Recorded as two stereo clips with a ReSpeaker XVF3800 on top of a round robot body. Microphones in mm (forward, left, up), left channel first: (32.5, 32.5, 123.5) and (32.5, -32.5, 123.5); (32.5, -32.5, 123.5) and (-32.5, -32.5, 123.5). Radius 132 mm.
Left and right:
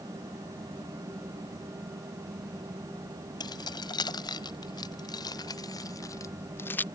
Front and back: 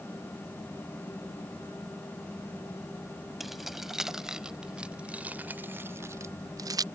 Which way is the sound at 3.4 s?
90° left.